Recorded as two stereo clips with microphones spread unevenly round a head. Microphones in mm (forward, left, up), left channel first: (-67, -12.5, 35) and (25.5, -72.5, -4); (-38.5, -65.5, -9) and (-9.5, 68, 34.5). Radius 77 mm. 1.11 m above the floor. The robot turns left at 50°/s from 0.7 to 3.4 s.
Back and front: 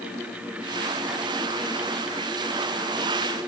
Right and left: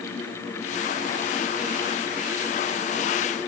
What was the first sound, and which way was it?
Only background noise.